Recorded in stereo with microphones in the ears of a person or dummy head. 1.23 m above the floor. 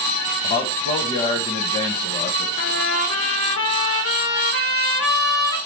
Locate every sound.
0.4 s a man speaking: 35° left (ahead or behind), 0.9 m
2.6 s a trumpet: 70° left (ahead or behind), 1.2 m